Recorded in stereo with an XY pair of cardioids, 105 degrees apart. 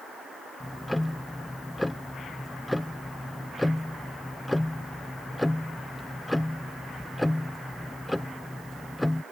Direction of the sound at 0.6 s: 5° left.